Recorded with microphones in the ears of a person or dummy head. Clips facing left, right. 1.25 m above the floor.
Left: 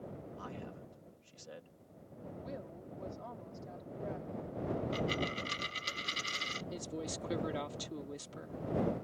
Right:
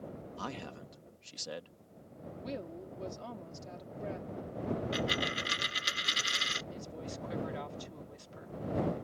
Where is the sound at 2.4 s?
45° right (ahead or behind).